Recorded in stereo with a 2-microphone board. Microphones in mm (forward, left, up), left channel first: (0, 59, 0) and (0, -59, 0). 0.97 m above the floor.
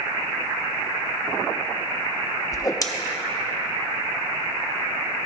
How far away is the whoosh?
About 0.5 m.